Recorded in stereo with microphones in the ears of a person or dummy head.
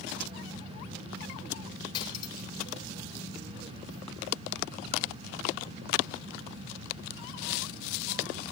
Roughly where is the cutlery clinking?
Left.